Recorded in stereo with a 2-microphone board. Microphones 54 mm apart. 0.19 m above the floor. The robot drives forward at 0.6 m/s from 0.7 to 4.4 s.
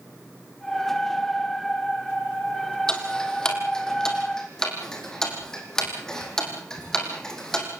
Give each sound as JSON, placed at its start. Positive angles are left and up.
{"t": 2.9, "sound": "ticking", "side_deg": 15, "distance_m": 3.0}